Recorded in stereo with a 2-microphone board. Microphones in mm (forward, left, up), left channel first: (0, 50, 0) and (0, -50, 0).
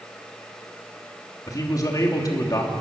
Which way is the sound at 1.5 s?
35° left (ahead or behind).